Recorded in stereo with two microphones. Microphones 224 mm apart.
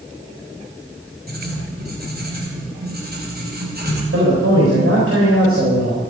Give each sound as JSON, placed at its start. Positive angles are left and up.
{"t": 1.3, "sound": "writing", "side_deg": -40, "distance_m": 3.0}
{"t": 4.1, "sound": "a man speaking", "side_deg": -65, "distance_m": 4.0}